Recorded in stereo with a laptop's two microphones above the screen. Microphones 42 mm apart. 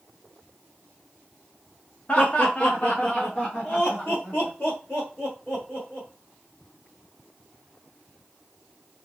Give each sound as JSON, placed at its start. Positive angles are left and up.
{"t": 2.1, "sound": "laughter", "side_deg": 30, "distance_m": 0.7}